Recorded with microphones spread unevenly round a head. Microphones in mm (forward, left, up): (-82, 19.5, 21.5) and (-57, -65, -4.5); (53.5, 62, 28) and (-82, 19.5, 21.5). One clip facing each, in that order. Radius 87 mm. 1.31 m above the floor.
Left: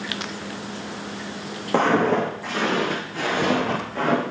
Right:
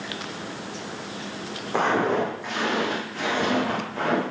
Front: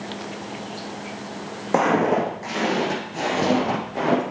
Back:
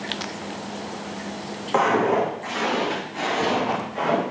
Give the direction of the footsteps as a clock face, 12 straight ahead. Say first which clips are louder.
Left 3 dB, front 1 dB; 10 o'clock.